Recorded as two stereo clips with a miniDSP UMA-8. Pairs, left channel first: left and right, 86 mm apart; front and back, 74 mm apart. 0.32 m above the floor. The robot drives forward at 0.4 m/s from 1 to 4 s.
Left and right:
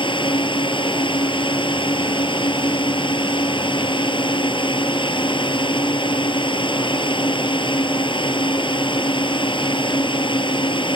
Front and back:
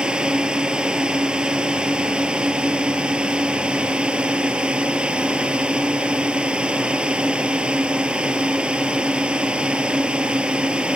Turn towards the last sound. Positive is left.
turn(degrees=105)